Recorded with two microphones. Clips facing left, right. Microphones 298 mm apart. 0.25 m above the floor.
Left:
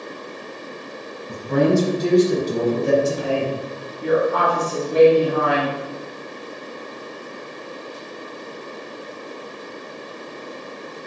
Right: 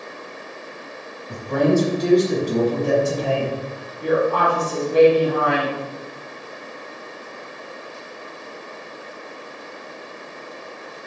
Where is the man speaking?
45° left (ahead or behind), 1.4 m; by 3.9 s 5° left (ahead or behind), 1.5 m.